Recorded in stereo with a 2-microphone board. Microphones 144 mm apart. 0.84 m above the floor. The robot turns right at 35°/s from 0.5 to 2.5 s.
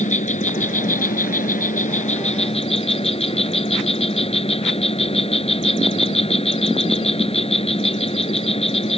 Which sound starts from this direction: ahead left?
An insect, at 0.0 s.